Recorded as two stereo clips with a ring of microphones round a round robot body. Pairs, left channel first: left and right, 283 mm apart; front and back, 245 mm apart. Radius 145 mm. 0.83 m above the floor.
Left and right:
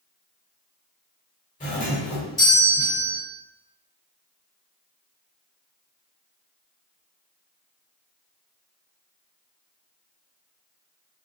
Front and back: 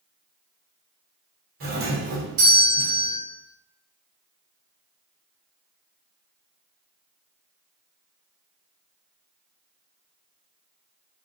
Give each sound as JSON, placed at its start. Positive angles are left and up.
{"t": 1.6, "sound": "a doorbell", "azimuth_deg": 150, "distance_m": 2.0}